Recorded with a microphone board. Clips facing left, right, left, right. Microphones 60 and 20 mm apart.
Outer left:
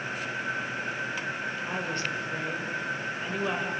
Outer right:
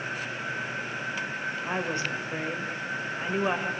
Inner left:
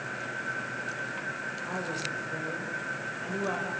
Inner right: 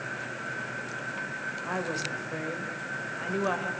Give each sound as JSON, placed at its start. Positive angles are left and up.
{"t": 1.6, "sound": "a woman speaking", "side_deg": -25, "distance_m": 2.0}